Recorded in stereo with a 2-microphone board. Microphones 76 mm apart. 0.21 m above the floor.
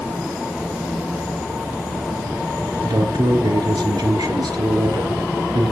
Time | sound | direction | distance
2.8 | a man speaking | 70° right (ahead or behind) | 3 m